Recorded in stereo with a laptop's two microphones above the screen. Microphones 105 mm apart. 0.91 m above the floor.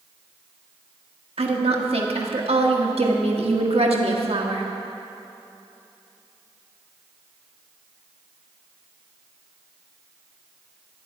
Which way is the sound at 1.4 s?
70° right (ahead or behind).